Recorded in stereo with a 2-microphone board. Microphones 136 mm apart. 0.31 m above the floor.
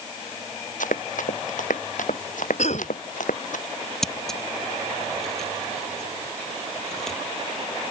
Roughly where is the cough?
Left.